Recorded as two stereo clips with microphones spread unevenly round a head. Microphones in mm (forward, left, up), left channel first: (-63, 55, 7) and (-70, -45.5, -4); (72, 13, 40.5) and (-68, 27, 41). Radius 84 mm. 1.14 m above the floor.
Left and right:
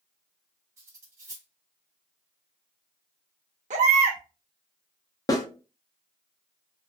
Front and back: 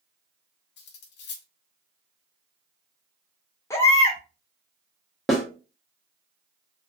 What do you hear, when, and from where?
0.8 s cutlery clinking: 20° right, 0.5 m
3.7 s a baby crying: 80° right, 0.6 m
5.3 s a snare drum: 85° left, 0.6 m